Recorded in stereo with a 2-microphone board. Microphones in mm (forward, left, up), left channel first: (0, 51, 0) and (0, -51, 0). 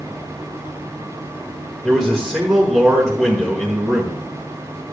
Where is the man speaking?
5° left (ahead or behind), 1.3 m.